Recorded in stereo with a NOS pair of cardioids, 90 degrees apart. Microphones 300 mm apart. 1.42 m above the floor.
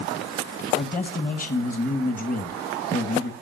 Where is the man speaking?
25° left, 2.0 m.